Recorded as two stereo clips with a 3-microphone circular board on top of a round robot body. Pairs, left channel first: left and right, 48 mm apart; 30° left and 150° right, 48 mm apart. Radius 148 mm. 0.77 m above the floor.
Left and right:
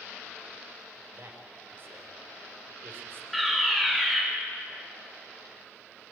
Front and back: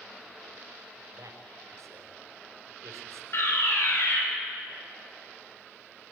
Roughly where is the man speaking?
Behind right.